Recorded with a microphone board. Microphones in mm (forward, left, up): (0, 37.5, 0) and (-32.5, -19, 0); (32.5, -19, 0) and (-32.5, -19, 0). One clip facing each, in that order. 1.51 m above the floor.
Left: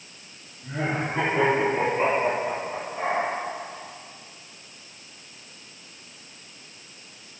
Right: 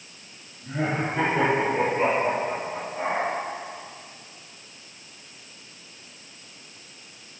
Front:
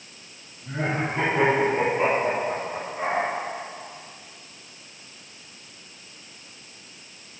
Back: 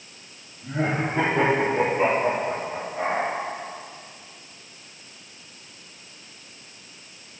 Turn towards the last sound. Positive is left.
turn(degrees=140)